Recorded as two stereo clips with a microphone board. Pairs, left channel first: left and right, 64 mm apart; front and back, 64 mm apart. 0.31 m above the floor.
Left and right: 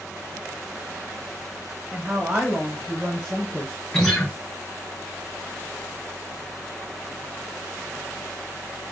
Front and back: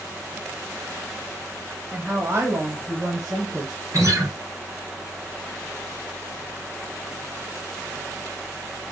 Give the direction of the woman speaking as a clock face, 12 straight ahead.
5 o'clock.